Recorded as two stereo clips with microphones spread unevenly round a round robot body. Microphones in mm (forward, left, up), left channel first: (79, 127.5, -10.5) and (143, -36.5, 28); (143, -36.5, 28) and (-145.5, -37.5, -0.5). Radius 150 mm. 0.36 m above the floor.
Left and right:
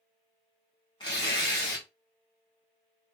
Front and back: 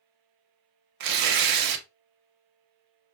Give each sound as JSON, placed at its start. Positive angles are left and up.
{"t": 1.0, "sound": "tearing paper", "azimuth_deg": 180, "distance_m": 0.6}